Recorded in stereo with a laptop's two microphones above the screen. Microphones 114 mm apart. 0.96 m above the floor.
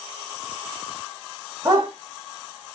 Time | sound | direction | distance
1.6 | a dog barking | 30° right (ahead or behind) | 1.0 m